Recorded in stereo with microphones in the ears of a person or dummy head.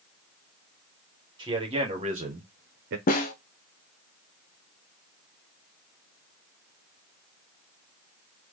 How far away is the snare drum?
About 0.8 m.